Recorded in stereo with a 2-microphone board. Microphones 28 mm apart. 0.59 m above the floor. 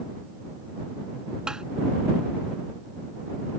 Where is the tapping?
25° right (ahead or behind).